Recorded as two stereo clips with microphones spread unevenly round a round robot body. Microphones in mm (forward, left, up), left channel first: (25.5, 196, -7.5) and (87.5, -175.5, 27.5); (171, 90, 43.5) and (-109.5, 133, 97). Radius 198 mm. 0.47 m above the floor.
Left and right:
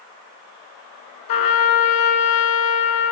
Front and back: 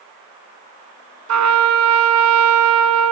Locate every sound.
1.3 s a trumpet: 140° left, 3.5 m